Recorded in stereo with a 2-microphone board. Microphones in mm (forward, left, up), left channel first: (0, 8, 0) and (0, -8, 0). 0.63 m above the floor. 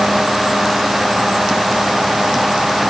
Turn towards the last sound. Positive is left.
No sound to turn to.